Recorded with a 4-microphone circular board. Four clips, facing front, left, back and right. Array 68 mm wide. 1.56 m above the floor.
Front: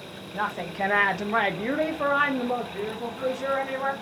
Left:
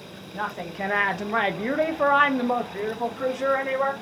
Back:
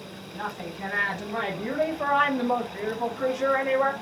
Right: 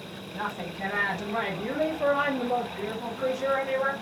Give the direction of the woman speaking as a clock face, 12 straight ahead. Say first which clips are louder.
Left 3 dB, front 6 dB; 11 o'clock.